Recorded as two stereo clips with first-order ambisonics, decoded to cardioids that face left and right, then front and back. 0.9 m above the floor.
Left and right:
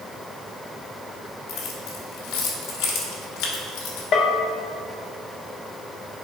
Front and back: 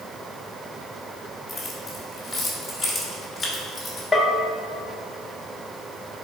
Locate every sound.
1.5 s keys jangling: 80° left, 1.5 m
4.1 s a bell: 75° left, 0.7 m